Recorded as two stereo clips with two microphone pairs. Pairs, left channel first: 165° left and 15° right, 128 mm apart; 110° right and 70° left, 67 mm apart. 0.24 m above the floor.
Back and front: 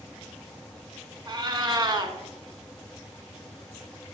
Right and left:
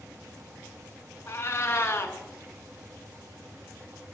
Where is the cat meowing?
65° right, 0.6 m.